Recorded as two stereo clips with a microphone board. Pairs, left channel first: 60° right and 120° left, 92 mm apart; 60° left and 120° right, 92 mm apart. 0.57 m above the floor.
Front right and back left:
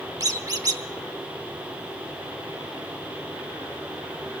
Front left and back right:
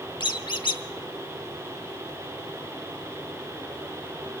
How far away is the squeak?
About 0.8 m.